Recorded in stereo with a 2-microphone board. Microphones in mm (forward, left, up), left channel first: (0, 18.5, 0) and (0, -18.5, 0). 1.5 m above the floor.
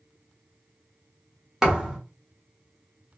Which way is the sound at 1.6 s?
15° right (ahead or behind).